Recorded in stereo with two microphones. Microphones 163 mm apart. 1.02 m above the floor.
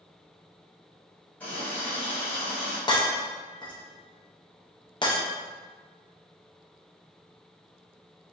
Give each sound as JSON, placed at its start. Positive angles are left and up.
{"t": 1.4, "sound": "a running tap", "side_deg": 10, "distance_m": 1.0}
{"t": 2.9, "sound": "breaking glass", "side_deg": 30, "distance_m": 0.5}